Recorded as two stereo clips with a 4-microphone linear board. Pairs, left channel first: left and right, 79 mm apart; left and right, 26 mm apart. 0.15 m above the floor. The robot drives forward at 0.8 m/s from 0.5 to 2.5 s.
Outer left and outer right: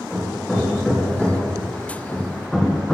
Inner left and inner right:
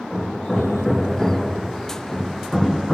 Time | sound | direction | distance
0.1 | hammering | 5° left (ahead or behind) | 4.5 m